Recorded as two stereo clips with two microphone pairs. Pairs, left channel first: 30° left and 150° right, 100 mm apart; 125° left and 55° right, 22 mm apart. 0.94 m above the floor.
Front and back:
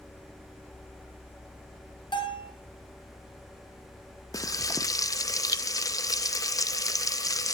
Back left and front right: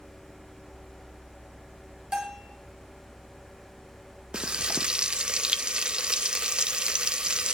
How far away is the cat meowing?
No cat meowing in this recording.